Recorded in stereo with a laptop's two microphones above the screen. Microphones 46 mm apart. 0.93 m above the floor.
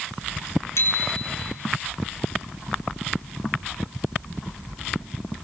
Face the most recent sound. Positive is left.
turn(degrees=75)  # may be behind; listen again after turning